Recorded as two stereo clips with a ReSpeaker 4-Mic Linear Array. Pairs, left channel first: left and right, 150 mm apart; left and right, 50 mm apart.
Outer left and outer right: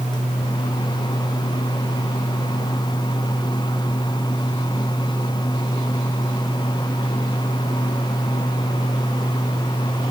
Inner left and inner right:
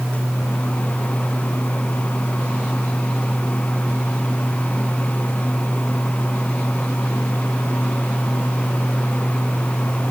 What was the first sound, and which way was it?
Only background noise.